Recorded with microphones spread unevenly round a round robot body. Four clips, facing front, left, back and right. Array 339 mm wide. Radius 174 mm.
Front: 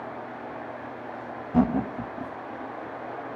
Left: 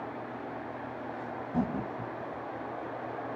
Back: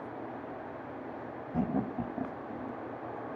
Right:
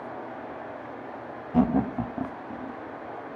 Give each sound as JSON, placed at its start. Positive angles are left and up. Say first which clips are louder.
{"t": 1.5, "sound": "laughter", "louder": "right 10 dB, front 9 dB", "azimuth_deg": -25}